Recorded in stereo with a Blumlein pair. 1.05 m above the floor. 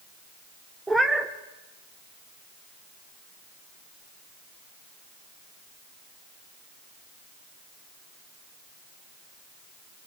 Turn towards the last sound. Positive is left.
turn(degrees=-5)